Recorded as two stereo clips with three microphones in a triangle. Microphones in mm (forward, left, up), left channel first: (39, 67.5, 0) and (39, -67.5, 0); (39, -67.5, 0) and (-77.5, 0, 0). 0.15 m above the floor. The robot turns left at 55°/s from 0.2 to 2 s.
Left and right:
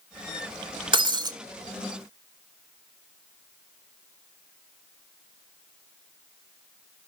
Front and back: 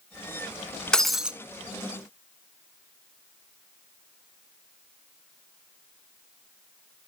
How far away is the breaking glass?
About 0.6 m.